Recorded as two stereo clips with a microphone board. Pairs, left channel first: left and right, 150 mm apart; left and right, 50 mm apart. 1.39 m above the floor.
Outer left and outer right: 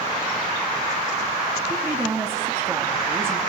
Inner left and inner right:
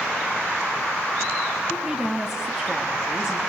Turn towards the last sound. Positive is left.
turn(degrees=-15)  # may be behind; listen again after turning